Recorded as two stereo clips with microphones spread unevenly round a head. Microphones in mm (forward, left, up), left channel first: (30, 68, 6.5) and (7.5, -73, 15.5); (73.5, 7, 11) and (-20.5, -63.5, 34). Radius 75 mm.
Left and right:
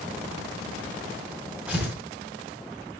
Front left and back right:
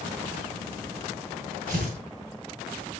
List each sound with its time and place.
1.7 s tearing paper: straight behind, 3.5 m